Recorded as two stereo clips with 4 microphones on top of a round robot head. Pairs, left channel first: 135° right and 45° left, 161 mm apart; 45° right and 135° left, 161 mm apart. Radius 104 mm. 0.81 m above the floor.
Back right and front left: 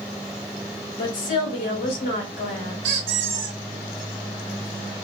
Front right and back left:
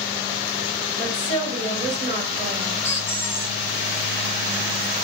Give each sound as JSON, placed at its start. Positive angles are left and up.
{"t": 1.0, "sound": "a woman speaking", "azimuth_deg": -120, "distance_m": 3.5}
{"t": 2.8, "sound": "a squeak", "azimuth_deg": 35, "distance_m": 1.6}